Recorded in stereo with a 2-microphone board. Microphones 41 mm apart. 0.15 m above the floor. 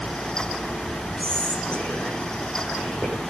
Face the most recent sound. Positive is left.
turn(degrees=25)  # may be behind; listen again after turning